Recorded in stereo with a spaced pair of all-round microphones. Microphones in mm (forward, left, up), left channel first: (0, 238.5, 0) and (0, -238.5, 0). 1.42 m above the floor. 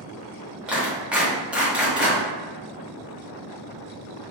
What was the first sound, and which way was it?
A clap, centre (ahead or behind).